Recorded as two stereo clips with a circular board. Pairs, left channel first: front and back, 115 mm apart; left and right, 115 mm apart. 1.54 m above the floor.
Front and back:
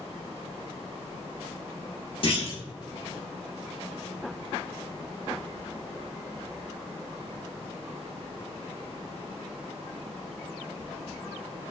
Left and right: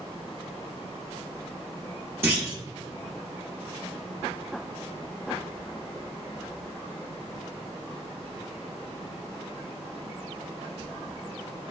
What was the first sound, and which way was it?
A clunk, 25° right.